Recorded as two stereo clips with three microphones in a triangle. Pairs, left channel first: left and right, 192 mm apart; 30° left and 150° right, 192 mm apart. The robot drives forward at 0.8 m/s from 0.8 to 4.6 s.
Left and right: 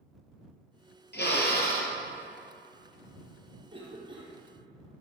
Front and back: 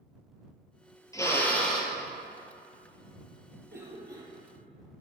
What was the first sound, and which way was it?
A drill, 100° left.